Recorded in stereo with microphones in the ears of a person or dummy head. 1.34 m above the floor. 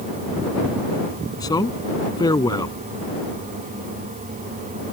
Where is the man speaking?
15° left (ahead or behind).